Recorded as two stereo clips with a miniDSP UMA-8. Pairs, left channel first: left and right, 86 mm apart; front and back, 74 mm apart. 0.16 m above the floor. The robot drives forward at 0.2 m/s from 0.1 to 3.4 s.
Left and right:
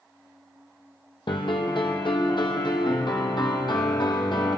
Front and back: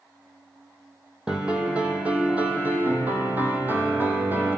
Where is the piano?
100° left, 1.5 m; by 4.6 s 115° left, 1.7 m.